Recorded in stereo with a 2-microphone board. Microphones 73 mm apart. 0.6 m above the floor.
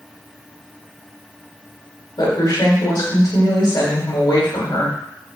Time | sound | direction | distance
2.2 | a woman speaking | 65° left (ahead or behind) | 1.9 m